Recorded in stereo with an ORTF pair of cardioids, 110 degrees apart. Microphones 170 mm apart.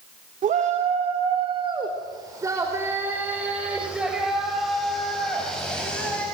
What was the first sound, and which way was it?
A shout, 50° right.